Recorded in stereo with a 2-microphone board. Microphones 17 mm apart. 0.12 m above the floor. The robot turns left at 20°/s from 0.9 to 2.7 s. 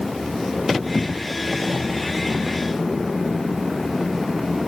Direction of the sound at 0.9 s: 10° right (ahead or behind).